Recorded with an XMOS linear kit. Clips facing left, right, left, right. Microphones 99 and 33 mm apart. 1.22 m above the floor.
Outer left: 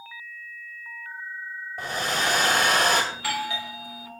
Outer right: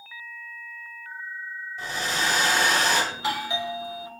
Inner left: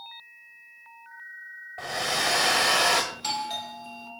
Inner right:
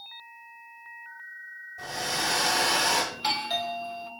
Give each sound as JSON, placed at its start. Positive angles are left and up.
{"t": 1.8, "sound": "a hair dryer", "side_deg": 55, "distance_m": 1.6}
{"t": 3.1, "sound": "a doorbell", "side_deg": -20, "distance_m": 0.8}